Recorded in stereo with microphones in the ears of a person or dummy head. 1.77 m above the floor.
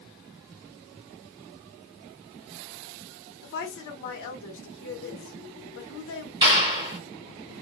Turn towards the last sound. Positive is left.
turn(degrees=-30)  # may be behind; listen again after turning